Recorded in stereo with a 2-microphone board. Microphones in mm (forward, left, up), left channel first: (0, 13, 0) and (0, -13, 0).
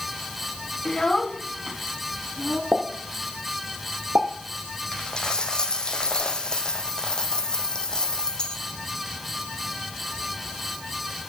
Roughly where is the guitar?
No guitar in this recording.